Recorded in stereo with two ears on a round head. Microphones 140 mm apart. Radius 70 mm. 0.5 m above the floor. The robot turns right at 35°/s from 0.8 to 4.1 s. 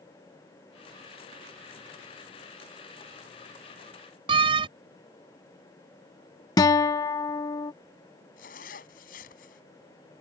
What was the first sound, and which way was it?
A door slam, 35° right (ahead or behind).